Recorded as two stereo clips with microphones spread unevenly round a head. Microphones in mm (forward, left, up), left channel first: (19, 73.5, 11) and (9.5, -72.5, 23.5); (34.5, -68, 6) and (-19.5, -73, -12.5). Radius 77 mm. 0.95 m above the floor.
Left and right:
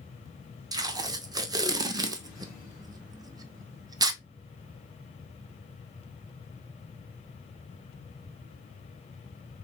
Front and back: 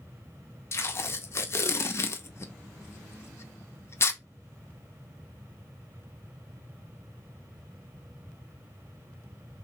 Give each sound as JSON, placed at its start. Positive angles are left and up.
{"t": 0.7, "sound": "tape being pulled", "azimuth_deg": -35, "distance_m": 0.6}